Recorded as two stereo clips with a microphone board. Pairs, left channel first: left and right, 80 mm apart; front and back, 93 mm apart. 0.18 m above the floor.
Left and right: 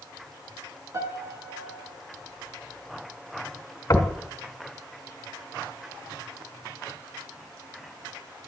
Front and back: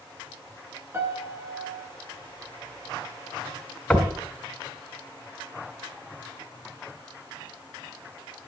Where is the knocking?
75° left, 1.5 m.